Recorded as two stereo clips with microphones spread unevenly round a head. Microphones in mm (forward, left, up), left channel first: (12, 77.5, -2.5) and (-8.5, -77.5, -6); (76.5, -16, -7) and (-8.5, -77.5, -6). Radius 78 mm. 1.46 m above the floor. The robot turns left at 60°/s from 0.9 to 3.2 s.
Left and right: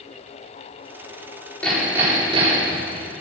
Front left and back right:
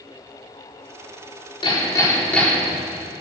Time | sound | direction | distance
1.6 | hammering | straight ahead | 3.5 m